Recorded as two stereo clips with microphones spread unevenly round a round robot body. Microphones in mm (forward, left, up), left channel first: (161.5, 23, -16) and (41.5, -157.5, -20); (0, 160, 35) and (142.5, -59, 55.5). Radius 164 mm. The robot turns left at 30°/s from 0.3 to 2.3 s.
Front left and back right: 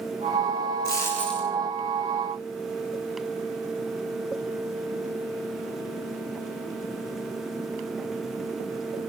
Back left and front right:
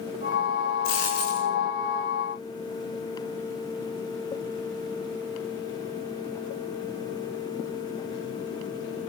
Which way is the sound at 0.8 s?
175° left.